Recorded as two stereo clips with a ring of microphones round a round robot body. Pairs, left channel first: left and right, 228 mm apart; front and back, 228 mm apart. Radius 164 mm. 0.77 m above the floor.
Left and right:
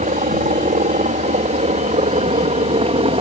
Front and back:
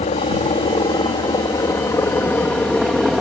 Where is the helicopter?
55° right; by 3.2 s 90° right.